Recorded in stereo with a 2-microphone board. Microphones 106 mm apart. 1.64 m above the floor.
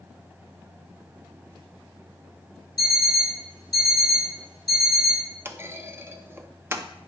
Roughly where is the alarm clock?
Left.